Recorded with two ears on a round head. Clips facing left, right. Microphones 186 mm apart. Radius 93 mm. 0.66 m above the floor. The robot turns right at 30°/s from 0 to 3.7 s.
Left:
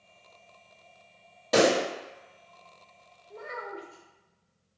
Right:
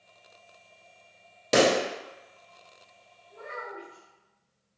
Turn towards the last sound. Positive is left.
turn(degrees=60)  # may be behind; listen again after turning